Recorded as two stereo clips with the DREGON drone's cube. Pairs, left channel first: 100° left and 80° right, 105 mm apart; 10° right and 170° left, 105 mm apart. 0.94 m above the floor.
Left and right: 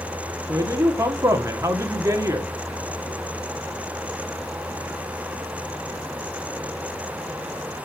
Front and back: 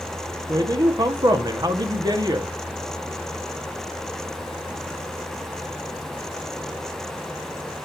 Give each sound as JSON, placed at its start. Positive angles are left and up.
{"t": 0.5, "sound": "a man speaking", "azimuth_deg": -140, "distance_m": 1.6}